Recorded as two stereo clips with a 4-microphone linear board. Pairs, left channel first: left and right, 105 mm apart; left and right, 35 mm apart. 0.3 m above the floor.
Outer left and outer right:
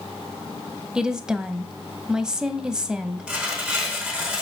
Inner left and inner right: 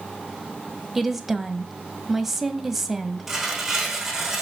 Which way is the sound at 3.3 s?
10° right (ahead or behind).